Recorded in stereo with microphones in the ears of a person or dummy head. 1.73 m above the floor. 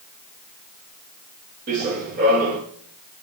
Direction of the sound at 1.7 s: 50° right (ahead or behind).